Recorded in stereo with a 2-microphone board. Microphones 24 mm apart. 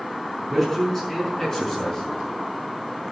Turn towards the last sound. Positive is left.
turn(degrees=30)  # may be behind; listen again after turning